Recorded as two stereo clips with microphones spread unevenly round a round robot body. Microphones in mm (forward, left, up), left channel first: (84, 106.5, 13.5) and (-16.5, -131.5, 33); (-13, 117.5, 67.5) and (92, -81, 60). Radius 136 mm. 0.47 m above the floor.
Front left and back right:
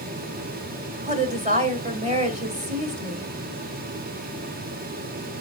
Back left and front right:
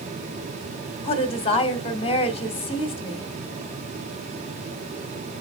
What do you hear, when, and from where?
1.0 s a woman speaking: straight behind, 1.9 m